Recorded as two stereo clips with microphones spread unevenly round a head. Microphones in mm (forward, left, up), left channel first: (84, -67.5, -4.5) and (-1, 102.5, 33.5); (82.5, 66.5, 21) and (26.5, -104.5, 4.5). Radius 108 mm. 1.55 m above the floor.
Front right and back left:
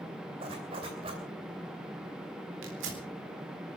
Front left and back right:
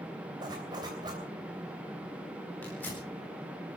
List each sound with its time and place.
0.4 s a zipper: straight behind, 3 m
2.6 s tearing paper: 155° left, 4 m